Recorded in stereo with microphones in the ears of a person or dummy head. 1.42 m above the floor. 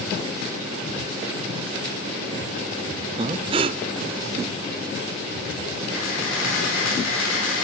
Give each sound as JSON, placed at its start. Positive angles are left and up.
{"t": 3.2, "sound": "breathing", "side_deg": -25, "distance_m": 0.5}
{"t": 5.9, "sound": "a camera shutter", "side_deg": 80, "distance_m": 5.5}